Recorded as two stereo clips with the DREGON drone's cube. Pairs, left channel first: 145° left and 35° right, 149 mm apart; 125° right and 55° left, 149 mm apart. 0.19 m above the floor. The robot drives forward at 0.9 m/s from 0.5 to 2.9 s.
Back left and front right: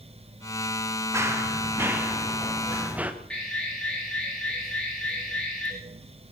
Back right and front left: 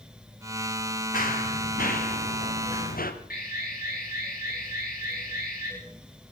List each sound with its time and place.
1.1 s running footsteps: 105° right, 4 m; by 3.1 s 115° right, 3 m
3.3 s an alarm: 130° right, 9.5 m